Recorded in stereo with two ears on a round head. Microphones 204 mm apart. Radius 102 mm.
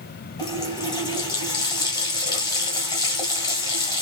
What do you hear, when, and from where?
0.4 s a running tap: 15° left (ahead or behind), 2 m